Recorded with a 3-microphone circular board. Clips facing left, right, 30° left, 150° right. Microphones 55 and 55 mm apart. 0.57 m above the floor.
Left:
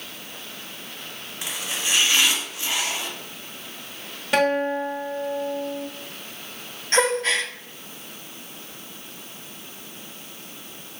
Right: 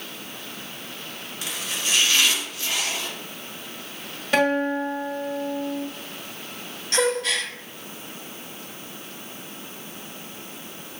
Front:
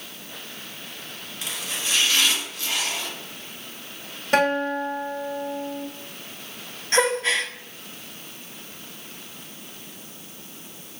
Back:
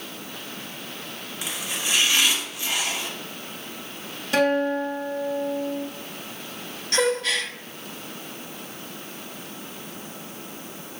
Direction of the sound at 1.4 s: 140° left.